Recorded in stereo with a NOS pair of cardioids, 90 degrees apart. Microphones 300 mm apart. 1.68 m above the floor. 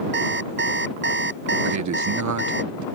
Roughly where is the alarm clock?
Ahead right.